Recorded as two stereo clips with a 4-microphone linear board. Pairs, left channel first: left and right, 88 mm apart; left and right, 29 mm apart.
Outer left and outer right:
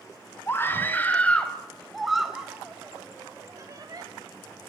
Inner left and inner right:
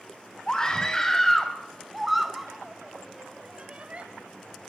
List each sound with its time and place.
0.5 s a scream: 25° left (ahead or behind), 3.5 m; by 4.0 s 45° right (ahead or behind), 3 m